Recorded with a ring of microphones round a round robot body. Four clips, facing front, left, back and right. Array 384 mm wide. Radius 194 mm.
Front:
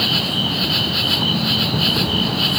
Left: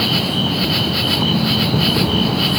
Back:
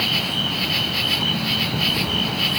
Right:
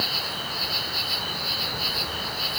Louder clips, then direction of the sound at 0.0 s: Left 13 dB, front 3 dB; 80° left.